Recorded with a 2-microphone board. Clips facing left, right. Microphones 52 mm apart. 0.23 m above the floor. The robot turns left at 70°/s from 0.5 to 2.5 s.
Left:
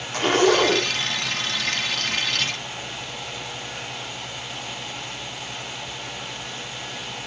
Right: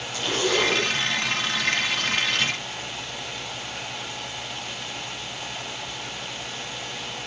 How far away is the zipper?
About 2.5 m.